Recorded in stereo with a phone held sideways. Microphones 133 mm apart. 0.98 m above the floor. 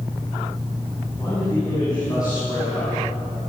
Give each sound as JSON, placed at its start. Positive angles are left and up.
{"t": 1.2, "sound": "a man speaking", "side_deg": 25, "distance_m": 9.5}